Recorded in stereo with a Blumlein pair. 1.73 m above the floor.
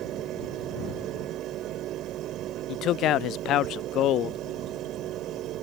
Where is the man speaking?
35° left.